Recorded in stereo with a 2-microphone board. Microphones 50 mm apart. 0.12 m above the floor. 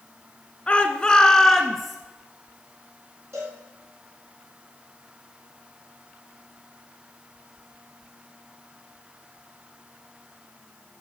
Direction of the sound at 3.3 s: 60° right (ahead or behind).